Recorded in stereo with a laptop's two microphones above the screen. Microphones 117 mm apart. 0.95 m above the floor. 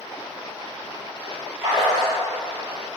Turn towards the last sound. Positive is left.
turn(degrees=-30)  # may be behind; listen again after turning